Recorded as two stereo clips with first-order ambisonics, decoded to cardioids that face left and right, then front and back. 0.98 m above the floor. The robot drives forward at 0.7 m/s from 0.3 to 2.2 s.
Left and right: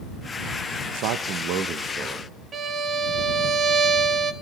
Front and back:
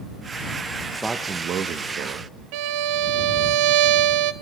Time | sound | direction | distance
0.9 | a man speaking | 85° right | 0.6 m
2.5 | a violin | 160° right | 0.6 m